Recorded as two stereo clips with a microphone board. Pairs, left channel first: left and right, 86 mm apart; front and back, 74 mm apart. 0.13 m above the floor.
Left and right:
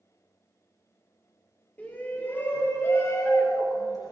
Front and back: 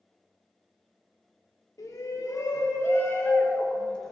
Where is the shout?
20° left, 3.5 m; by 4.1 s 80° left, 2 m.